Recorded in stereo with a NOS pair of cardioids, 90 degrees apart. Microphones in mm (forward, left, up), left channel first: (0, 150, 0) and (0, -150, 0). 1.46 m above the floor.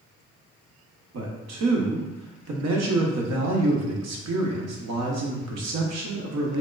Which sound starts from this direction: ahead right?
A man speaking, at 1.1 s.